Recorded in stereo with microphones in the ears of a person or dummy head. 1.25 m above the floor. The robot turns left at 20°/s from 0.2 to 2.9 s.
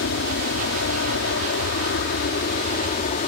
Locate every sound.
0.0 s an aircraft: 105° left; by 3.3 s 50° left